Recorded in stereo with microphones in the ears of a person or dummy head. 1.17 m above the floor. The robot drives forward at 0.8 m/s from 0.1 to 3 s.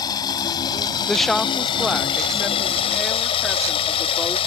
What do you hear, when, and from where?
0.0 s running water: 20° left (ahead or behind); by 4.5 s 30° left (ahead or behind)
1.1 s a woman speaking: 5° left (ahead or behind); by 4.4 s centre (ahead or behind)